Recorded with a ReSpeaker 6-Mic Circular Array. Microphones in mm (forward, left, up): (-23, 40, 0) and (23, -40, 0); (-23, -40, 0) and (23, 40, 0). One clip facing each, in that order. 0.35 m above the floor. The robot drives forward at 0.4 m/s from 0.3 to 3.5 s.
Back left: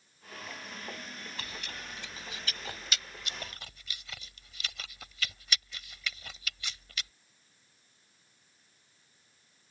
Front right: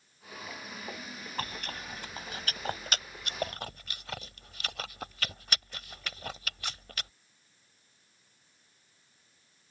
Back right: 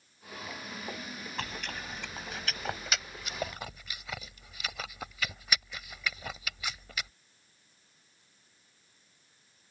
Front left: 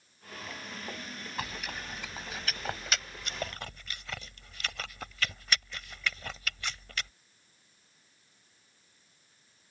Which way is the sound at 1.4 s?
25° right.